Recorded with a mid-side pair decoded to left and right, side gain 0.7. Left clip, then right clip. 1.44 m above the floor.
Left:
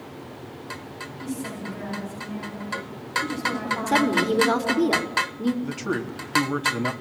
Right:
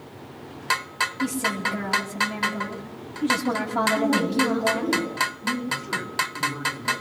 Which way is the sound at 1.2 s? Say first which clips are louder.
Right 8 dB; 55° right.